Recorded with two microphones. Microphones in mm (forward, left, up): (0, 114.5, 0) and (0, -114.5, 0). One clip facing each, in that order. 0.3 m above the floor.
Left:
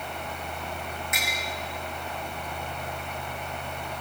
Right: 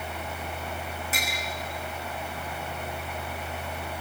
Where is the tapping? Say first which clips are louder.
Right 1 dB; 35° right (ahead or behind), 7 m.